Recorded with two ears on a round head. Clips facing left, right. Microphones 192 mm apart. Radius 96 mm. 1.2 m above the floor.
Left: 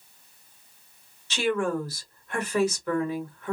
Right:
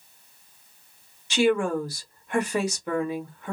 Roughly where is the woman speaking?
Centre.